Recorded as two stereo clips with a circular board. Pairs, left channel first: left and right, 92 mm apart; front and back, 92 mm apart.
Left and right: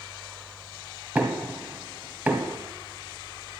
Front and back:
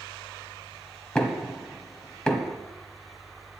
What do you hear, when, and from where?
1.1 s knocking: 65° right, 1.1 m